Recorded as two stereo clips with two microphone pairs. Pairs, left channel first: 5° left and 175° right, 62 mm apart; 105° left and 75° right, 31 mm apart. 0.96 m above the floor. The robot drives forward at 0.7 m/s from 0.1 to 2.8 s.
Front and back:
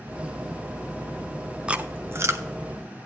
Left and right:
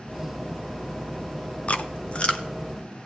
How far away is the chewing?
About 0.5 m.